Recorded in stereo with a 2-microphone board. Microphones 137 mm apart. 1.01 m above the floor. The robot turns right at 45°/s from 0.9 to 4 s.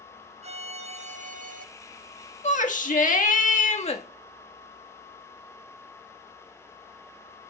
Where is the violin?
125° right, 0.6 m; by 1.6 s 95° right, 0.6 m.